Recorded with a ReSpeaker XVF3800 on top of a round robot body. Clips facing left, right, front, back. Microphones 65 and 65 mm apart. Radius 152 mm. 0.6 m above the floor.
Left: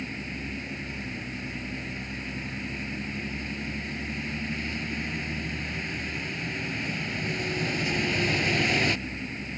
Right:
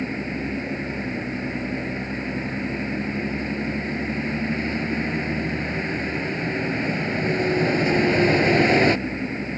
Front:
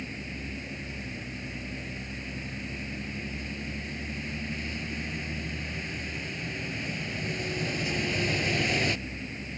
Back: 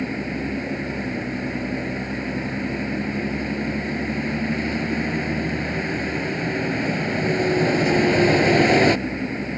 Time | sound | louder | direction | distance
0.0 | a vehicle | right 8 dB, back 12 dB | 145° right | ?